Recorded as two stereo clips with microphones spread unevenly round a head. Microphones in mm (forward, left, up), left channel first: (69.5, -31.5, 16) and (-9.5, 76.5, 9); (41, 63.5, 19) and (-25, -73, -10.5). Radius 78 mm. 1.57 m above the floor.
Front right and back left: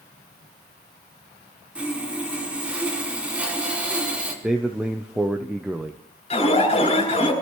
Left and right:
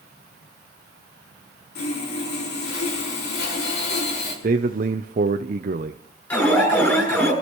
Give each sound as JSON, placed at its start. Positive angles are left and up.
{"t": 1.8, "sound": "sawing", "azimuth_deg": 45, "distance_m": 4.0}
{"t": 4.4, "sound": "a man speaking", "azimuth_deg": -150, "distance_m": 0.5}
{"t": 6.3, "sound": "an alarm", "azimuth_deg": -15, "distance_m": 7.0}